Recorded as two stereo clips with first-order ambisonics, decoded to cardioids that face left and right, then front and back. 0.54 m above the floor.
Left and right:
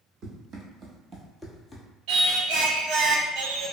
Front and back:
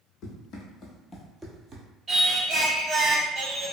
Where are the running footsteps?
45° right, 1.0 m; by 1.9 s 160° left, 0.6 m.